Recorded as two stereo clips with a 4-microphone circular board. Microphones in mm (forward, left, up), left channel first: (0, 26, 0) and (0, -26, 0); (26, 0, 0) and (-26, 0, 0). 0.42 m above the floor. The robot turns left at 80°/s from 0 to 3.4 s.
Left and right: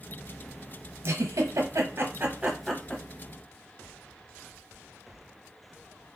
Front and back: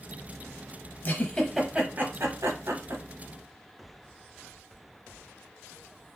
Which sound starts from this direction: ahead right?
A giggle, at 1.0 s.